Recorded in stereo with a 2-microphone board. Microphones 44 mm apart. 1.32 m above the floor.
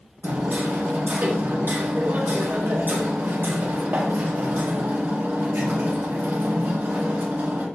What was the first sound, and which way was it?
Hammering, 55° right (ahead or behind).